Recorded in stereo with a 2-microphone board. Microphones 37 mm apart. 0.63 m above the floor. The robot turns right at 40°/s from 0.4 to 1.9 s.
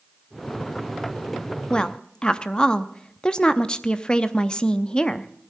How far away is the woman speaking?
About 0.6 m.